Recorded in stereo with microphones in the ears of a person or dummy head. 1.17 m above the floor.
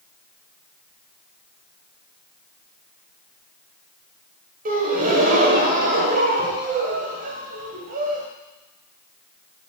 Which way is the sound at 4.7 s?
40° right (ahead or behind).